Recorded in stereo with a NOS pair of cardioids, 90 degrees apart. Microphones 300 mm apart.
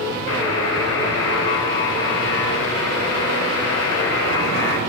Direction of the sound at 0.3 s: 70° left.